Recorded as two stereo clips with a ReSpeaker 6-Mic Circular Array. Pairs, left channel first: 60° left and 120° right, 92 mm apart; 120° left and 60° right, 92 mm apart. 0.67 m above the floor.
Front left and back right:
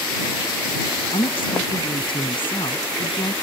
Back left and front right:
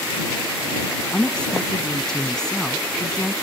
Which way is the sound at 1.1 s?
40° left.